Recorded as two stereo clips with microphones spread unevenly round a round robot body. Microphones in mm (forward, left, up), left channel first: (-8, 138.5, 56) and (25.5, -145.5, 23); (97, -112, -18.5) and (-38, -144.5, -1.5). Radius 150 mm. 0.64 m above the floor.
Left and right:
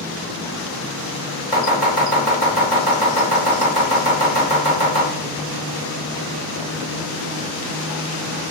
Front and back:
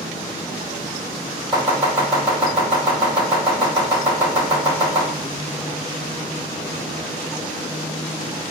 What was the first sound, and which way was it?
Chopping, 155° left.